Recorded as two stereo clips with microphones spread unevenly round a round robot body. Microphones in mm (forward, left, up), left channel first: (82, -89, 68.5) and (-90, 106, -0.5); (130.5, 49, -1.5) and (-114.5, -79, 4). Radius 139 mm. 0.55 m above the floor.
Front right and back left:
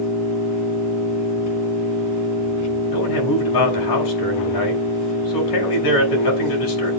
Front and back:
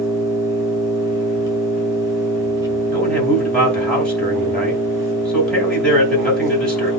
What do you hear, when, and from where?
0.0 s an engine running: 70° right, 5 m
2.9 s a man speaking: 60° right, 4.5 m